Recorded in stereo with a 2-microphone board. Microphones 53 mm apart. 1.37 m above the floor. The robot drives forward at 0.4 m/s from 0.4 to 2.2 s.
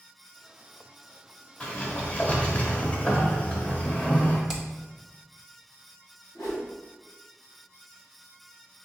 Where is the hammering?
15° right (ahead or behind), 0.5 m.